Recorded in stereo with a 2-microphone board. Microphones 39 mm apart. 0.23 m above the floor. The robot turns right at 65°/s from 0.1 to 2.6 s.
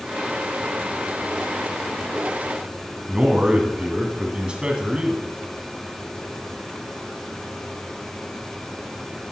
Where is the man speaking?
30° right (ahead or behind), 2 m.